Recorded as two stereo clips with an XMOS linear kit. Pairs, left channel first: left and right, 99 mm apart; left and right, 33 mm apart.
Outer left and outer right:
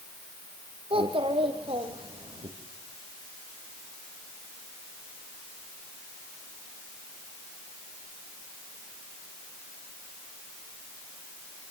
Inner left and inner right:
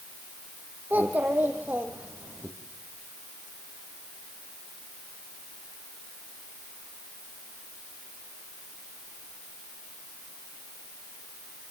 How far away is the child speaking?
About 4 m.